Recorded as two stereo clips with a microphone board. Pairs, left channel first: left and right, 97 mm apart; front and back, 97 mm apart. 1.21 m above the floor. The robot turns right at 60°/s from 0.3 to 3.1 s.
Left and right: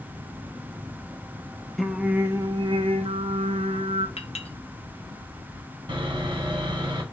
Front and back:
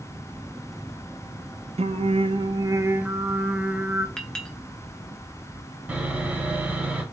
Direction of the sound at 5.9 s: 110° right.